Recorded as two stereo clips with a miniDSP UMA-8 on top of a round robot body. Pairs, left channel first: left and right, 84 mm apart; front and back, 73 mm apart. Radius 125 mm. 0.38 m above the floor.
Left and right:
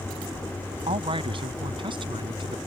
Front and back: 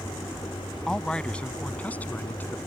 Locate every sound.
0.9 s a man speaking: 80° right; by 2.6 s 65° right